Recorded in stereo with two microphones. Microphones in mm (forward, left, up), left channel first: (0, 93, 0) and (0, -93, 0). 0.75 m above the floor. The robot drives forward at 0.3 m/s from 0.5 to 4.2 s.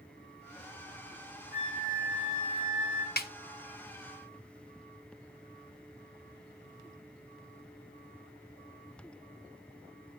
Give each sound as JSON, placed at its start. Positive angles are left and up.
{"t": 1.5, "sound": "a flute", "side_deg": 50, "distance_m": 4.5}
{"t": 3.2, "sound": "a snare drum", "side_deg": 55, "distance_m": 0.6}